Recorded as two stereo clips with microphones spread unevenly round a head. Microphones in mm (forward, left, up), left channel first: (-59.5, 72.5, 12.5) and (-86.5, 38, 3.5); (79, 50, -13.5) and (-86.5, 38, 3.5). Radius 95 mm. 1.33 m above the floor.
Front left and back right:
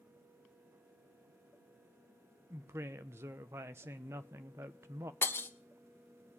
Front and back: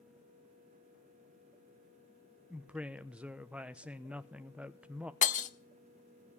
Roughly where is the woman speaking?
Right.